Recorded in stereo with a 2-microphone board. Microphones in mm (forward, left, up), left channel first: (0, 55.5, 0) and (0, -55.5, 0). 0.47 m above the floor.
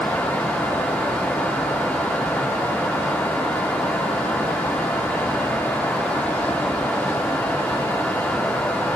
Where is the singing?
I don't hear singing.